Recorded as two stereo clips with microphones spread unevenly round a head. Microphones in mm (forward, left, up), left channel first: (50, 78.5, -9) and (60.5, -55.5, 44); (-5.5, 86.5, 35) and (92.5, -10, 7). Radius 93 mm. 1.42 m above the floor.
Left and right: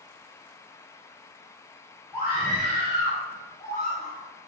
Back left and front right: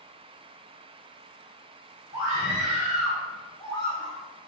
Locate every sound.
2.1 s a scream: 30° left, 4 m; by 4.2 s 85° left, 3 m